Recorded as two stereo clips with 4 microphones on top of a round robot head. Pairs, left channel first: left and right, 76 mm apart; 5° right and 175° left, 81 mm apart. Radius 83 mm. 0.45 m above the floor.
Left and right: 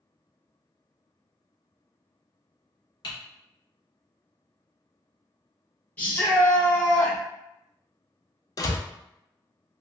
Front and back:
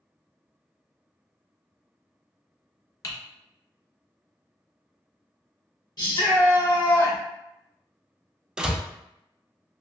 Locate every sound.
3.0 s typing on a keyboard: 45° left, 0.7 m
6.0 s a shout: 20° left, 1.7 m
8.6 s a door slam: 95° left, 0.5 m